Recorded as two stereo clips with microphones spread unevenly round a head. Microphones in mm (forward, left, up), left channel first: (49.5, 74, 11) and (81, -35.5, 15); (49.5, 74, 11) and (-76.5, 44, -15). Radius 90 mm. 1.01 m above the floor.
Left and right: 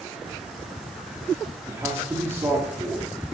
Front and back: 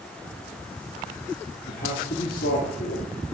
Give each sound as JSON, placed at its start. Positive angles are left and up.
{"t": 1.7, "sound": "a man speaking", "azimuth_deg": -5, "distance_m": 2.5}